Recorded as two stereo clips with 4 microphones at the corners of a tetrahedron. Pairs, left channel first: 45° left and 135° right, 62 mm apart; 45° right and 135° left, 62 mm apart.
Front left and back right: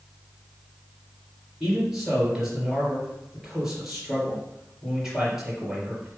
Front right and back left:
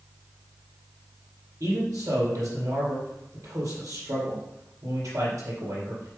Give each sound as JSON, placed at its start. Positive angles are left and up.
{"t": 1.6, "sound": "a man speaking", "azimuth_deg": 140, "distance_m": 4.0}